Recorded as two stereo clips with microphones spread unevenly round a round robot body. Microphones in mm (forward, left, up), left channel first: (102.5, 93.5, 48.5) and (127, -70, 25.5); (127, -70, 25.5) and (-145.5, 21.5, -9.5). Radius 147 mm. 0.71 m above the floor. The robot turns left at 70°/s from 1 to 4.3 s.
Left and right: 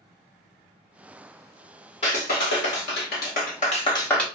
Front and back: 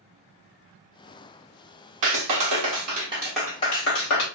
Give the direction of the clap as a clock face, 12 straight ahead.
6 o'clock.